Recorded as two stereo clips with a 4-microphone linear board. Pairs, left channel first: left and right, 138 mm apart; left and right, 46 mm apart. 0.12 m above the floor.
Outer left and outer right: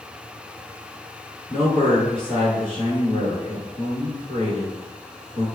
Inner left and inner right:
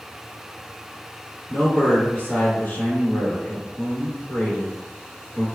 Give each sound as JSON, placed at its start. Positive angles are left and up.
{"t": 1.5, "sound": "a man speaking", "side_deg": 40, "distance_m": 1.3}